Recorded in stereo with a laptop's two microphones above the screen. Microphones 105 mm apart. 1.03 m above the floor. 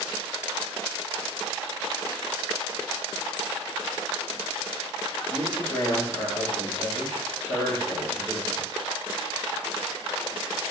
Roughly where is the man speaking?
Left.